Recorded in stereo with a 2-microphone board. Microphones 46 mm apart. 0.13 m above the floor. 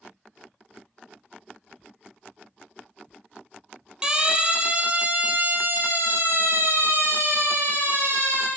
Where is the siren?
15° right (ahead or behind), 4 m; by 8.5 s 75° right (ahead or behind), 6 m.